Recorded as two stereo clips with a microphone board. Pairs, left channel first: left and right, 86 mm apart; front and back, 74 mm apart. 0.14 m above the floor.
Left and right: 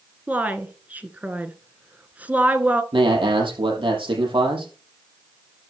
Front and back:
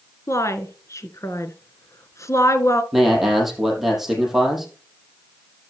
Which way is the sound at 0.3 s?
25° right.